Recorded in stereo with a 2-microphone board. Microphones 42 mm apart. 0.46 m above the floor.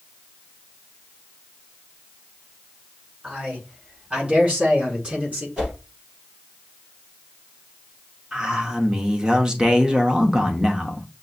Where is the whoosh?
20° right (ahead or behind), 3.5 m.